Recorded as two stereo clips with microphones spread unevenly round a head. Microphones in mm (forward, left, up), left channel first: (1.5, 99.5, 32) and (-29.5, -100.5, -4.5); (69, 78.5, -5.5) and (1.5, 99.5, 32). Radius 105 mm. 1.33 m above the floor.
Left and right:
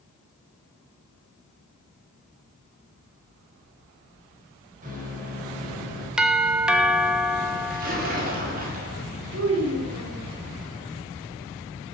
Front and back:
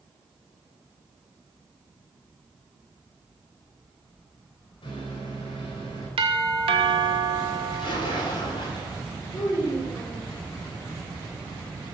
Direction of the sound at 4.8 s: 45° right.